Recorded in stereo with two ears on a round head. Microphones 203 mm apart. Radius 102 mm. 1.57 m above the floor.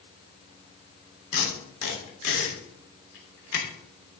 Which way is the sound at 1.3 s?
75° left (ahead or behind).